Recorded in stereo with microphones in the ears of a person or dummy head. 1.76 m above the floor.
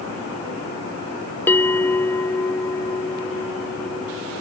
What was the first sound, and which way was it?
A bell, 10° left (ahead or behind).